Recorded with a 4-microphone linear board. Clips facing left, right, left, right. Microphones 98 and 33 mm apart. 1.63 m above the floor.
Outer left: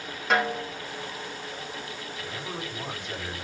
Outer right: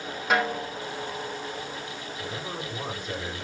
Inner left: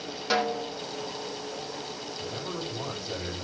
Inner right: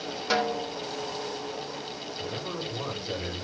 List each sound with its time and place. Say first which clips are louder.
0.3 s a snare drum: even, even; 5° right (ahead or behind), 2 m
2.2 s a man speaking: outer right 1 dB, inner right 1 dB; 40° right (ahead or behind), 7.5 m